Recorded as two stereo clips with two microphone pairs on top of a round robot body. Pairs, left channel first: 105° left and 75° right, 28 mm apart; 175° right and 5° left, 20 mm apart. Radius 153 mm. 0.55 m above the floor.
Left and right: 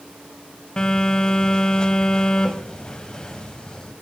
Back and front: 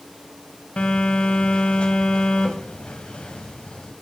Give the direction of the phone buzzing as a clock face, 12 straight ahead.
6 o'clock.